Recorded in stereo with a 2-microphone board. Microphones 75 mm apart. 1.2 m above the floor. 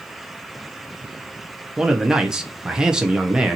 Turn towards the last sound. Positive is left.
turn(degrees=-10)  # may be behind; listen again after turning